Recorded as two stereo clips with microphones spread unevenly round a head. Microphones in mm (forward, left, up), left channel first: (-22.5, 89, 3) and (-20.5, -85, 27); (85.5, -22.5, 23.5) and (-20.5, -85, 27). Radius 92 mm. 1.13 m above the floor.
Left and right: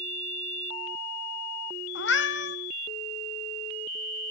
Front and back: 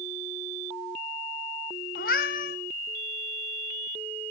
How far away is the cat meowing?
About 1.0 m.